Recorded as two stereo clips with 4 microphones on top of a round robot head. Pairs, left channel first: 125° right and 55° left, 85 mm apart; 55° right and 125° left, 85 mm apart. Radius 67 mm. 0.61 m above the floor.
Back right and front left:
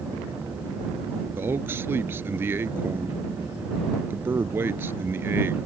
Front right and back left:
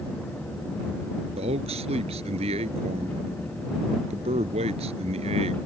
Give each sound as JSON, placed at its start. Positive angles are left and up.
{"t": 1.4, "sound": "a man speaking", "azimuth_deg": 120}